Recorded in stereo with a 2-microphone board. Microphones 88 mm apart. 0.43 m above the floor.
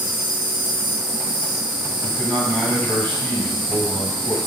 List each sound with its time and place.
0.0 s an insect: 60° right (ahead or behind), 1.2 m
2.0 s a man speaking: 15° left (ahead or behind), 2 m